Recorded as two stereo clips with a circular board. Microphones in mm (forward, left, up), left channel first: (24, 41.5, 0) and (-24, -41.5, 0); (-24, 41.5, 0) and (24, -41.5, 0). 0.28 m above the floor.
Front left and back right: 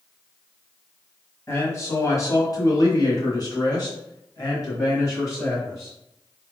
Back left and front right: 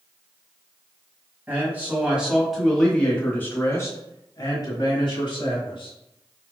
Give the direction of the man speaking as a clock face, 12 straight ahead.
12 o'clock.